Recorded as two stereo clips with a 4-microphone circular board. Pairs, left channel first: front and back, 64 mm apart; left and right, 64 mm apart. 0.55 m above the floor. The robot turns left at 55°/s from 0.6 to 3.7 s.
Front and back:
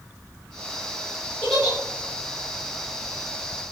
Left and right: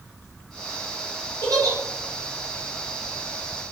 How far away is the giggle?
About 1.3 m.